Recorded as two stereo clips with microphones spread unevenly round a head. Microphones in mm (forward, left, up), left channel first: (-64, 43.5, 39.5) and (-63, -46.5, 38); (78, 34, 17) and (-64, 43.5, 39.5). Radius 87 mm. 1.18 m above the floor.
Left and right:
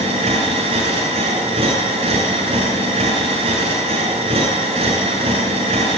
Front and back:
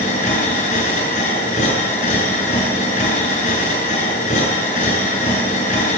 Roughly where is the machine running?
Ahead right.